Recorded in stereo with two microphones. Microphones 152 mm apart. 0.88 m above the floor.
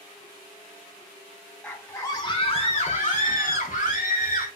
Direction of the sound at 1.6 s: 5° left (ahead or behind).